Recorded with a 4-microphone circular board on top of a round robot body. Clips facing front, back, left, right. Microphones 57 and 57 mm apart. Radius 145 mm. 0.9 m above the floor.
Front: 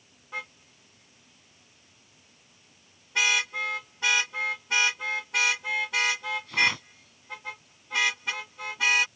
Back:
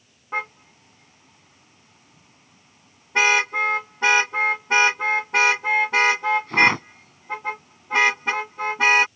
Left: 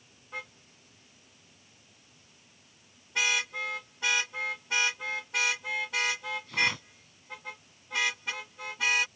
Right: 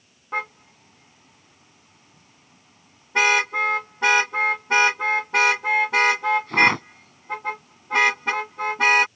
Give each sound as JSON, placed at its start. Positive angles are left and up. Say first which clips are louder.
{"t": 0.3, "sound": "a car horn", "louder": "back 9 dB, right 13 dB", "azimuth_deg": -130}